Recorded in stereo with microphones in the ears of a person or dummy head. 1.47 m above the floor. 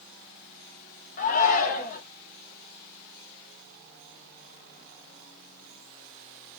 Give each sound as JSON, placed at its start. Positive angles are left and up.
{"t": 1.2, "sound": "a shout", "side_deg": 50, "distance_m": 0.9}